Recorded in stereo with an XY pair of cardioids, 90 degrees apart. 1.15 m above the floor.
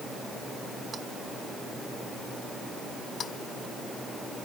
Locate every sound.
Only background noise.